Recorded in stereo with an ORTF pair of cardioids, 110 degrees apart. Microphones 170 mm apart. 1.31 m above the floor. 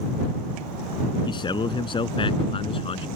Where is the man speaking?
30° left; by 3.1 s 35° left.